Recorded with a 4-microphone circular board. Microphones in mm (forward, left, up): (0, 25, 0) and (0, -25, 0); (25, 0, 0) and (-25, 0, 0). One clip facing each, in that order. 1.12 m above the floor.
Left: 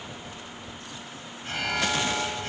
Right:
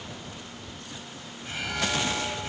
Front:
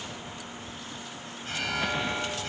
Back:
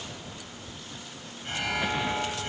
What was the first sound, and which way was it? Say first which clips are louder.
An alarm: left 3 dB, back 1 dB; 130° left.